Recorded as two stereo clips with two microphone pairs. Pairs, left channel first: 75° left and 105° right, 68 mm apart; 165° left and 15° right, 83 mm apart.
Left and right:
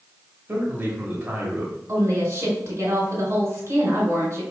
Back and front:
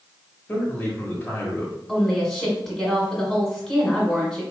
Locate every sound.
0.5 s a man speaking: 140° right, 1.2 m
1.9 s a woman speaking: 105° right, 1.7 m